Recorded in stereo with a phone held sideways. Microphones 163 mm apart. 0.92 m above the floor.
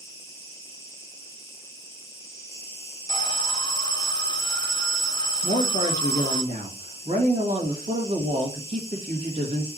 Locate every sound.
0.0 s an insect: 20° right (ahead or behind), 2 m
3.1 s an alarm: 25° left (ahead or behind), 1.2 m
5.4 s a woman speaking: 50° right (ahead or behind), 1.5 m